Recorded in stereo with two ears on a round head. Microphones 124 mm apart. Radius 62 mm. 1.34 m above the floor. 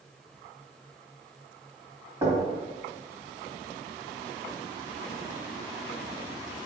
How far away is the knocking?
About 2.5 m.